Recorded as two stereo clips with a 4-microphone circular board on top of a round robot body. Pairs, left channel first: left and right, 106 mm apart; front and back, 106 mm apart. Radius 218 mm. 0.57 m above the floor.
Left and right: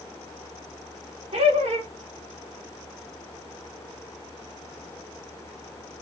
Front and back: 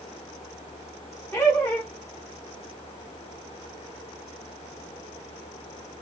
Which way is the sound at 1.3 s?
70° right.